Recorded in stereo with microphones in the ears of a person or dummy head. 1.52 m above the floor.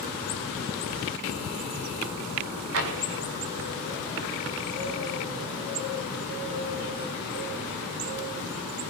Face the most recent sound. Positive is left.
turn(degrees=-70)  # may be behind; listen again after turning